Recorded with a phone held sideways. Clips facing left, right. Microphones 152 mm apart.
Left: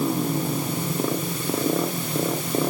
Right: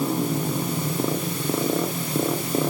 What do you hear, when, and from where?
Only background noise.